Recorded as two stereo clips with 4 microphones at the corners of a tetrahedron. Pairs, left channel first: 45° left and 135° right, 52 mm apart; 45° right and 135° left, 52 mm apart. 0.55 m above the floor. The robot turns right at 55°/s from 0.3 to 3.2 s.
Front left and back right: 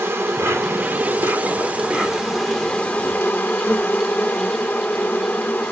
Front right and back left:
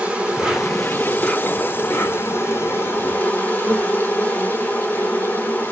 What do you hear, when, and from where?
0.0 s an insect: 155° right, 1.4 m; by 5.7 s 5° left, 1.4 m